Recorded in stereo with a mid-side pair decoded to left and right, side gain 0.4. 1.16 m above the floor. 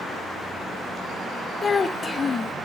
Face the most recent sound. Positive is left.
turn(degrees=40)